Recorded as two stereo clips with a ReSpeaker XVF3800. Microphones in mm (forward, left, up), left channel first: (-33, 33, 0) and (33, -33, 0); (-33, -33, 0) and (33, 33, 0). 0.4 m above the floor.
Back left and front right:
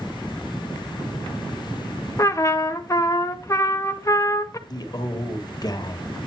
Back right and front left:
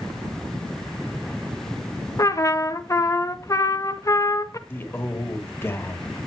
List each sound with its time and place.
2.2 s a trumpet: straight behind, 0.8 m
4.7 s a man speaking: 165° left, 1.3 m